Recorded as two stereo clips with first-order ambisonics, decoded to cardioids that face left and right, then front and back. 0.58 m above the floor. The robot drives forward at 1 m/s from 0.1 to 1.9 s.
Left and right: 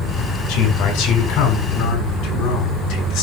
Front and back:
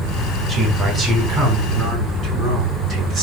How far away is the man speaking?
About 4 m.